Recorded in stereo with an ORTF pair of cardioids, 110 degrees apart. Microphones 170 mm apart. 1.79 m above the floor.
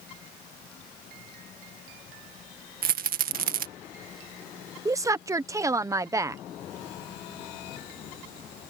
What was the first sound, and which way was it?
A rattle, 55° right.